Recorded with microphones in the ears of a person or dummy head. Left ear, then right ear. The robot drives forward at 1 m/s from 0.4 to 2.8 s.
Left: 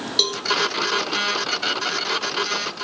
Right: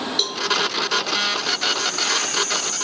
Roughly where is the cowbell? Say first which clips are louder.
Left 3 dB; left.